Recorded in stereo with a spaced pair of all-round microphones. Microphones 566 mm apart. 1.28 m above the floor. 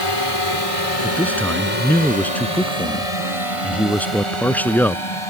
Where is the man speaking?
5° left (ahead or behind).